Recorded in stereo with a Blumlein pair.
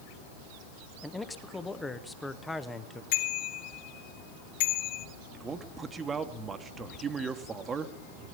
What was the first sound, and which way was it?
A man speaking, 5° left.